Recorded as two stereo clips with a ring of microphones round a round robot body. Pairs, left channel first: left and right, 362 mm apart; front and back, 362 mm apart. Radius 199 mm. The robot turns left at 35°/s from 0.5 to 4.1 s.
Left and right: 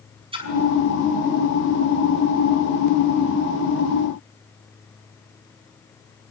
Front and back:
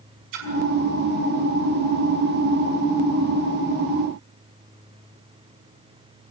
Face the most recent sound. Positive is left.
turn(degrees=70)